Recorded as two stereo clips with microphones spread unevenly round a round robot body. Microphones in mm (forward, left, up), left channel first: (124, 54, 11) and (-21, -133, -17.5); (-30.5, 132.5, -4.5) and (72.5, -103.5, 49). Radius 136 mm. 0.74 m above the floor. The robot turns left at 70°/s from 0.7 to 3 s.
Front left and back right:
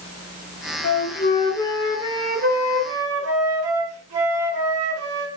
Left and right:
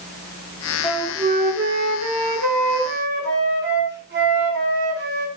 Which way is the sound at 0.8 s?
30° left.